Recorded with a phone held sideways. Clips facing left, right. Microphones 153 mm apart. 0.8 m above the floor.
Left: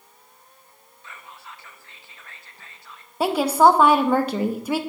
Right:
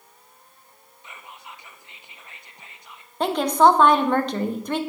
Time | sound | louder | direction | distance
1.0 | whispering | even | 20° right (ahead or behind) | 0.5 m
3.2 | a woman speaking | left 1 dB | 10° left (ahead or behind) | 0.5 m